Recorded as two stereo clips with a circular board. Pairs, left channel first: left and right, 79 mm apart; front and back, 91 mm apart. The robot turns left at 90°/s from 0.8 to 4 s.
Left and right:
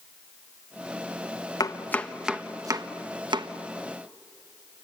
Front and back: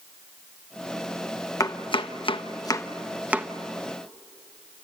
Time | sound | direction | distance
1.6 | chopping | 50° left | 1.1 m